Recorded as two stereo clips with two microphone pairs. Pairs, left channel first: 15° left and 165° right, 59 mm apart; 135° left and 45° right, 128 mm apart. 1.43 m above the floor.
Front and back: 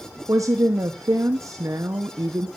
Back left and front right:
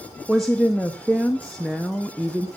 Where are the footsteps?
I don't hear footsteps.